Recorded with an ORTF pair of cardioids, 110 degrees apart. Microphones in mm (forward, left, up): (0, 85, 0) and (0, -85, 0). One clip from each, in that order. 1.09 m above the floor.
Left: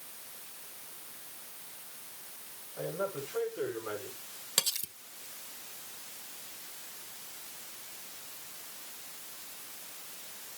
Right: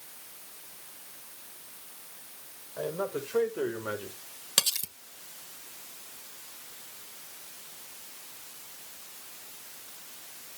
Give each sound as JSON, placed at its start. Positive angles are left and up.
{"t": 2.8, "sound": "a man speaking", "azimuth_deg": -55, "distance_m": 5.0}
{"t": 4.6, "sound": "cutlery clinking", "azimuth_deg": -20, "distance_m": 0.7}